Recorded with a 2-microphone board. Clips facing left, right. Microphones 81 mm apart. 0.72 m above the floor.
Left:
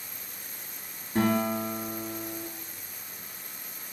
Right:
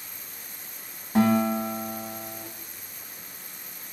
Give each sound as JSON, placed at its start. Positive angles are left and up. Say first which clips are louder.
{"t": 1.1, "sound": "a guitar", "louder": "right 4 dB", "side_deg": -80, "distance_m": 2.0}